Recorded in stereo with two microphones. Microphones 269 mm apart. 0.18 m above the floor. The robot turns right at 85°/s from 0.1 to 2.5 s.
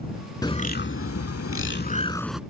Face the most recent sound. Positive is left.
turn(degrees=-165)